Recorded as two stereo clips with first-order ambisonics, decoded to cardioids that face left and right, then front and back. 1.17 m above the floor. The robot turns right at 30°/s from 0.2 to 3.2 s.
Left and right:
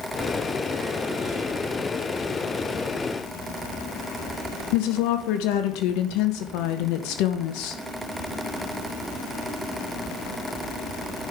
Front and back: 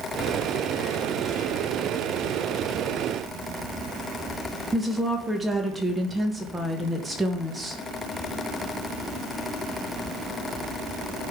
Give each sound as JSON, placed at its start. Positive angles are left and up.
{"t": 4.7, "sound": "a woman speaking", "azimuth_deg": 100, "distance_m": 1.2}